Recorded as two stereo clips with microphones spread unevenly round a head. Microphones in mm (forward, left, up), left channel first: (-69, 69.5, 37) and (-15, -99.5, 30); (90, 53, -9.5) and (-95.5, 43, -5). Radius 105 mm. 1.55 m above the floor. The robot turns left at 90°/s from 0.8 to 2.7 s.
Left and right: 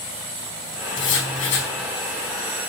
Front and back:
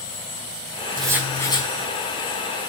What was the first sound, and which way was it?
Writing, 120° left.